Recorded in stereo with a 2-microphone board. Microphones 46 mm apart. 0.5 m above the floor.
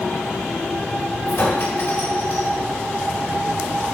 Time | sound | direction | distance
1.3 | a clink | 60° left (ahead or behind) | 1.8 m